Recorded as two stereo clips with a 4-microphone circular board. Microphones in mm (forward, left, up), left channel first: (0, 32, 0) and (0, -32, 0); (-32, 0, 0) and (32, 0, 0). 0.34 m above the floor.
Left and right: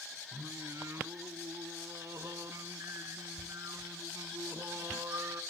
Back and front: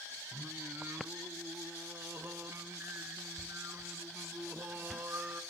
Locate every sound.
0.3 s singing: 55° right, 1.6 m